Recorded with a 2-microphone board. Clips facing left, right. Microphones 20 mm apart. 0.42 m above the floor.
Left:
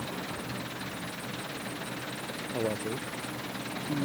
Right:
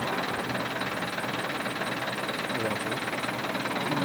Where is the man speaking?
20° left (ahead or behind).